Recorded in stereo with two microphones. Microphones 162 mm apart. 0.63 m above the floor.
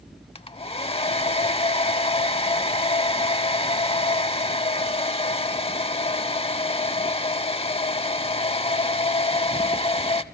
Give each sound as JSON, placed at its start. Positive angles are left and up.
{"t": 0.3, "sound": "a hair dryer", "side_deg": 35, "distance_m": 0.7}